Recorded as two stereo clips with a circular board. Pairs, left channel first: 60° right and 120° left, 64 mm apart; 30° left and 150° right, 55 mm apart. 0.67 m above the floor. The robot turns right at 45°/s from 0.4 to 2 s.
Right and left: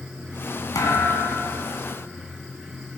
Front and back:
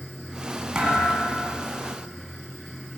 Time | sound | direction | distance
0.8 | a thud | 75° right | 3 m